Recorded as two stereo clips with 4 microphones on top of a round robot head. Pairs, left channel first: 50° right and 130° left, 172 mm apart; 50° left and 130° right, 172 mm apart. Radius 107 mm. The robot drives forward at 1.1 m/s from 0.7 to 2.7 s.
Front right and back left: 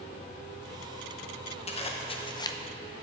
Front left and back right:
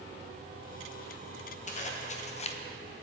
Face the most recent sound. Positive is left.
turn(degrees=25)